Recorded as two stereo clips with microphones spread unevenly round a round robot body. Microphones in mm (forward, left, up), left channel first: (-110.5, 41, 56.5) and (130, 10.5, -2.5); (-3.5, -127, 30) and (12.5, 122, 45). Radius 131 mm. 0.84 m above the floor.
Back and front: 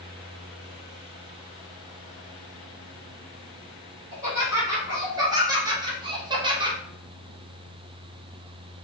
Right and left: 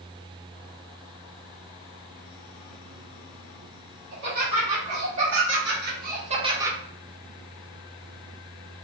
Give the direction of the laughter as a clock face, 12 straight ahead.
10 o'clock.